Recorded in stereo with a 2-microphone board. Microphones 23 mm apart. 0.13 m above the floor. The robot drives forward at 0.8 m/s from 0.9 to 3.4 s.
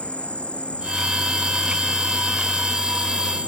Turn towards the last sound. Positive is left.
turn(degrees=65)  # may be behind; listen again after turning